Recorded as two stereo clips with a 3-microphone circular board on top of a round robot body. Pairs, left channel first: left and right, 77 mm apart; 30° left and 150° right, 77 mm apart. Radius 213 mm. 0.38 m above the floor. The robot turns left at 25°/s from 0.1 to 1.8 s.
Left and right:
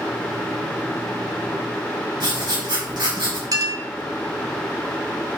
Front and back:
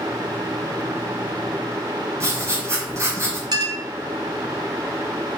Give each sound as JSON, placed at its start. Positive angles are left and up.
{"t": 2.2, "sound": "writing", "azimuth_deg": -100, "distance_m": 4.0}
{"t": 3.5, "sound": "a clink", "azimuth_deg": -125, "distance_m": 2.0}